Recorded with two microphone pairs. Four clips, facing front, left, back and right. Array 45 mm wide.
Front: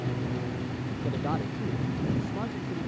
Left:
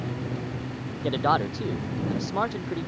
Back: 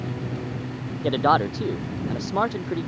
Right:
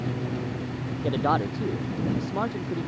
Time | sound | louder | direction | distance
1.0 | a man speaking | left 1 dB, back 13 dB | 175° left | ?